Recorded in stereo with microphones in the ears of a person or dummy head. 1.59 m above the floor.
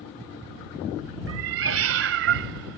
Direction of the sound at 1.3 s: 70° right (ahead or behind).